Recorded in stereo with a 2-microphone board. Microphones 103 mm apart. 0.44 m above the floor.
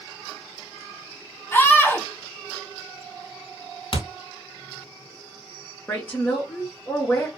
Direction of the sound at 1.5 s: 20° left (ahead or behind).